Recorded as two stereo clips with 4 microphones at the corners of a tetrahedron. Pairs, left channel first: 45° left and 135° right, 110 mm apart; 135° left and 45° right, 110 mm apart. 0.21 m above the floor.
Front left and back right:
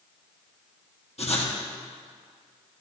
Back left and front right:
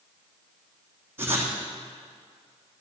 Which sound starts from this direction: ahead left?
Writing, at 1.2 s.